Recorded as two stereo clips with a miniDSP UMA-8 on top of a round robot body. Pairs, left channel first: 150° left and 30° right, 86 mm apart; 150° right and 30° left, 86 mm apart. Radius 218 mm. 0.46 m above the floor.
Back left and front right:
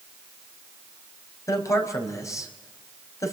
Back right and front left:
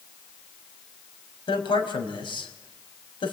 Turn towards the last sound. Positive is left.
turn(degrees=-160)